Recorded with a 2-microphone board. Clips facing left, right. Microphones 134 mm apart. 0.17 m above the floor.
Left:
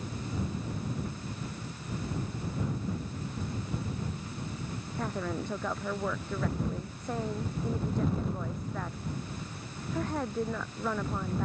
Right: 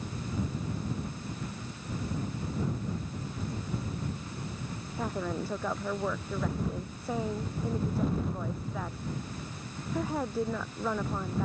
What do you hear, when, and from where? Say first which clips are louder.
5.0 s a woman speaking: right 1 dB; 5° right (ahead or behind)